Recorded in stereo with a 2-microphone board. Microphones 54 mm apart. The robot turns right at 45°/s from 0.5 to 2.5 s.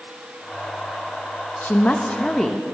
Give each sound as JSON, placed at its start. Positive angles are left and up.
{"t": 1.6, "sound": "a woman speaking", "azimuth_deg": 140, "distance_m": 0.6}